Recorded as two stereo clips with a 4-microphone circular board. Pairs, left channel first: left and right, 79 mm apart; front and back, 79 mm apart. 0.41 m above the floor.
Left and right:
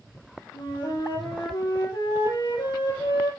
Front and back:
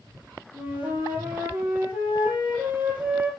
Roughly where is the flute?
Left.